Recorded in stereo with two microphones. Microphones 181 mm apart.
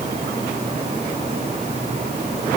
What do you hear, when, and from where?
Only background noise.